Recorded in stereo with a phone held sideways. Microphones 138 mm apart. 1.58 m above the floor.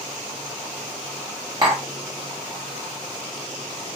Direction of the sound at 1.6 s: 35° right (ahead or behind).